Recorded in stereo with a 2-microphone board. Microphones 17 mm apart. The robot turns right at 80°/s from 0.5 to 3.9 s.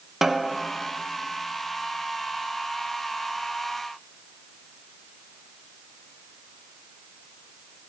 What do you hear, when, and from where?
0.2 s a snare drum: 10° right (ahead or behind), 0.6 m; by 0.6 s 15° right (ahead or behind), 0.6 m